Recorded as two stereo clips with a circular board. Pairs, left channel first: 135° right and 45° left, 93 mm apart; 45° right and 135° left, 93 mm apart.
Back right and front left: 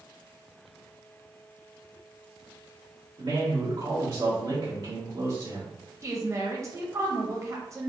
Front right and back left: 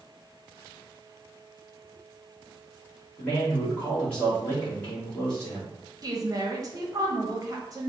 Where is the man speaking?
30° left, 2 m.